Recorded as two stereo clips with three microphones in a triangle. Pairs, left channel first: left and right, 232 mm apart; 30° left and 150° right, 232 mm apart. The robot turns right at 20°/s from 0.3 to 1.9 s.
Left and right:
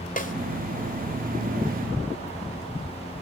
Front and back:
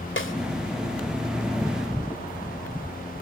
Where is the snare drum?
45° left, 2.5 m.